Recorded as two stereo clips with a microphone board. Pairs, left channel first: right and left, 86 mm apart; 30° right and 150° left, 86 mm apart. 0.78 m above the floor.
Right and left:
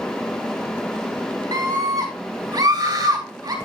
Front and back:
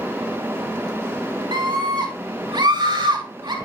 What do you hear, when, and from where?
1.5 s a scream: 125° left, 2.5 m